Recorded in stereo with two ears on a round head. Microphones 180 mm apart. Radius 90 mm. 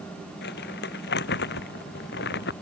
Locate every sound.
0.4 s crumpling: 55° left (ahead or behind)